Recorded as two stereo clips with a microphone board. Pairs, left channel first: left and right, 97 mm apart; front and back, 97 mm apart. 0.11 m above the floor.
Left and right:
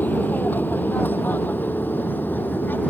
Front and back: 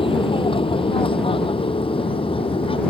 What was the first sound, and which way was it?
An aircraft, 20° left.